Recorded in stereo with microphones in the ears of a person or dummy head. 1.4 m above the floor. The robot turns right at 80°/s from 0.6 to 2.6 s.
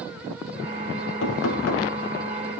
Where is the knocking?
70° left, 5 m; by 1.9 s 125° left, 5 m.